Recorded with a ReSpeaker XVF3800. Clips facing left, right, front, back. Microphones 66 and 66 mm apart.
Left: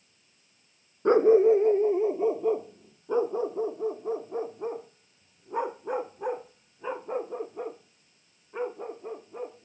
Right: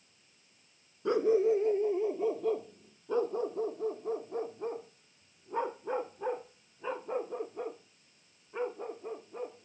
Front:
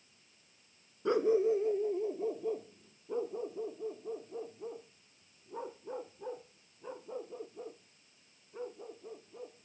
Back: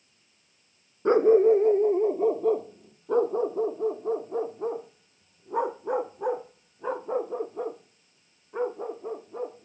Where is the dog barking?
130° left; by 9.7 s 170° left.